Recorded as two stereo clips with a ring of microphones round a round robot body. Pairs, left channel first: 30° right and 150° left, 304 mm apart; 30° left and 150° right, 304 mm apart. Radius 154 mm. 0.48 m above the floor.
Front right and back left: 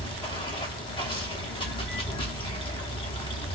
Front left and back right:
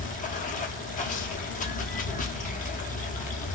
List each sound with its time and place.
0.0 s running water: 20° left, 0.7 m